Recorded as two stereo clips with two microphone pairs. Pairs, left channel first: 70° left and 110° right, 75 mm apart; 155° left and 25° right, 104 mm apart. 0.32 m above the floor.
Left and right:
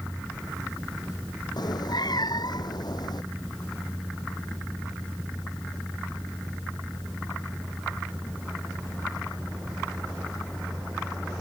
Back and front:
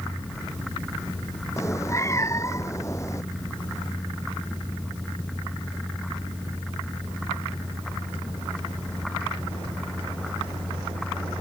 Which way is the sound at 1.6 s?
95° left.